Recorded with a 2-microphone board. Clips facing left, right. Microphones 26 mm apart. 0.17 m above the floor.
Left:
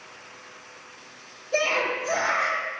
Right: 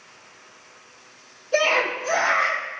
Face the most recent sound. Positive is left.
turn(degrees=-10)  # may be behind; listen again after turning